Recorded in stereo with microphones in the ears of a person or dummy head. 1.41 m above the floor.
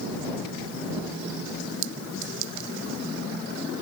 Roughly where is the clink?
Right.